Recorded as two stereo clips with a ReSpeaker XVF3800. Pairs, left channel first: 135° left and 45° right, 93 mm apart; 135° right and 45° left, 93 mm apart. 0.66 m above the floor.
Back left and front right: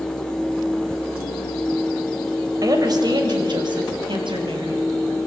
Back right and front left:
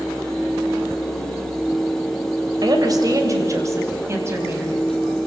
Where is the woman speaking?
5° left, 3.5 m; by 4.9 s 20° right, 6 m.